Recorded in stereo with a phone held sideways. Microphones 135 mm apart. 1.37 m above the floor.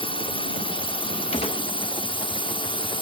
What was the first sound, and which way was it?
A drone, 40° left (ahead or behind).